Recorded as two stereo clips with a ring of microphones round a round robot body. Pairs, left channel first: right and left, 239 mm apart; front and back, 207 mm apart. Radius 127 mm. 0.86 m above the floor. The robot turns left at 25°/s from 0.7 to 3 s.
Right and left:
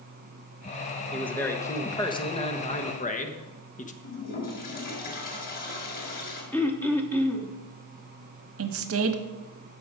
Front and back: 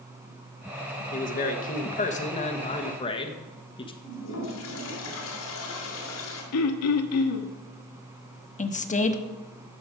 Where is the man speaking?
5° right, 1.1 m; by 3.9 s 50° right, 1.1 m.